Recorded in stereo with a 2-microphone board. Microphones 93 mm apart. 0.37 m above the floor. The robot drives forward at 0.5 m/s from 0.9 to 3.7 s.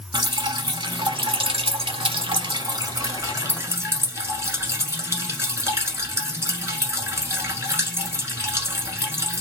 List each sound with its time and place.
0.1 s dripping: 55° right (ahead or behind), 0.7 m; by 9.4 s 30° right (ahead or behind), 1.1 m